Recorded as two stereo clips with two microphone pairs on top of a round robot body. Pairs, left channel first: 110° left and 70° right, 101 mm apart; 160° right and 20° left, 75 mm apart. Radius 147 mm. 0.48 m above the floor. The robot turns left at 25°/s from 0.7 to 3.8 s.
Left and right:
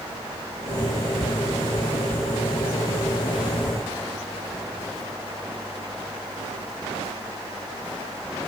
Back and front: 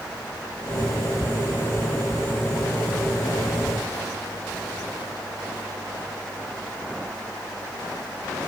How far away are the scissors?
No scissors in this recording.